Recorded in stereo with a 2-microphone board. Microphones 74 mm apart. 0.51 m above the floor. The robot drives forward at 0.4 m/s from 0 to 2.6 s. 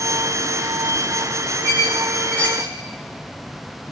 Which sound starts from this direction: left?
A squeak, at 1.6 s.